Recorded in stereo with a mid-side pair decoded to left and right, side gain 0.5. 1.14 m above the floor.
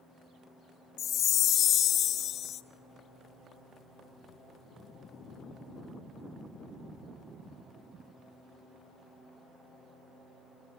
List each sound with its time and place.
1.0 s a chime: 60° left, 0.9 m